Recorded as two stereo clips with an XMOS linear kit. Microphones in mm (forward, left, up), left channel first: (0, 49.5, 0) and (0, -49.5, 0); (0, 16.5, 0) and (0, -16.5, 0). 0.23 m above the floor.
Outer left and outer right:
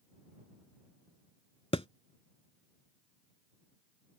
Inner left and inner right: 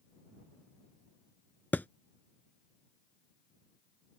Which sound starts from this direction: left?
A thud, at 1.7 s.